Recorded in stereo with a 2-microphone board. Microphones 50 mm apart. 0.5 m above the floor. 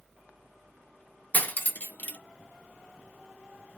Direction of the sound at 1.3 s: 35° left (ahead or behind).